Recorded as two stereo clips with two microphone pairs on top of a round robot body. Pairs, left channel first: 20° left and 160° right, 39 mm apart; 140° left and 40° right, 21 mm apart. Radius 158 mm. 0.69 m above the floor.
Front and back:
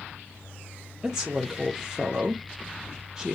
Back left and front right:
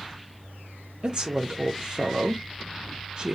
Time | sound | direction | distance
1.0 | a woman speaking | 85° right | 1.0 m